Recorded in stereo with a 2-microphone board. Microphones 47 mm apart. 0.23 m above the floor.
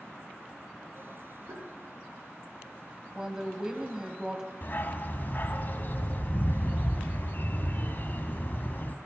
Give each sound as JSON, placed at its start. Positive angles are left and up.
{"t": 1.5, "sound": "tapping", "side_deg": -80, "distance_m": 4.0}
{"t": 3.1, "sound": "a woman speaking", "side_deg": -15, "distance_m": 1.2}
{"t": 4.6, "sound": "a dog barking", "side_deg": 50, "distance_m": 0.7}